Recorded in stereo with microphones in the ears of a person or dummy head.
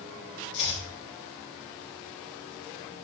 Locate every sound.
0.5 s chopping: 60° left (ahead or behind), 3.5 m